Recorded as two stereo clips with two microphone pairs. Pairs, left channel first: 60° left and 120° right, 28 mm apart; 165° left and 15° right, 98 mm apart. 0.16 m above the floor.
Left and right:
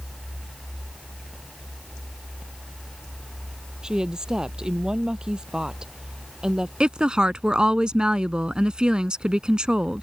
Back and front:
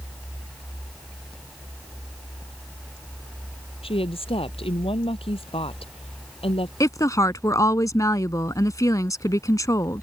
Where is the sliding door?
I don't hear a sliding door.